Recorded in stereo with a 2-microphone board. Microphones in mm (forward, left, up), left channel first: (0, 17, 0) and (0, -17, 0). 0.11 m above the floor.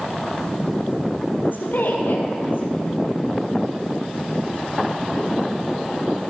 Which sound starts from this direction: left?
A woman speaking, at 1.4 s.